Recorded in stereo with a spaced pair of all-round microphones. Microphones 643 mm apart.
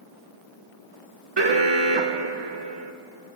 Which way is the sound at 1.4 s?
45° right (ahead or behind).